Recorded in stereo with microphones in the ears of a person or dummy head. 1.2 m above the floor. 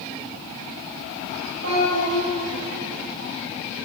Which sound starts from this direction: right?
A child speaking, at 1.6 s.